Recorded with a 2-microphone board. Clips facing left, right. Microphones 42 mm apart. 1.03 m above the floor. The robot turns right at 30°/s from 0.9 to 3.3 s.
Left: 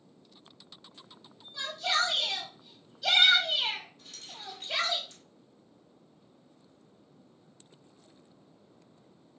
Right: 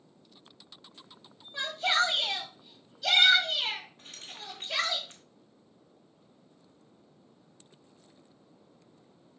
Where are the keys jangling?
50° right (ahead or behind), 1.0 m.